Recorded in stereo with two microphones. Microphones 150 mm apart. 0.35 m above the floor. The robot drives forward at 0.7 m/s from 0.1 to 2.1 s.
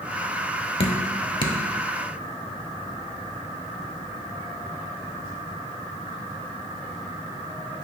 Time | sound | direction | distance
0.8 | dripping | 40° left (ahead or behind) | 0.9 m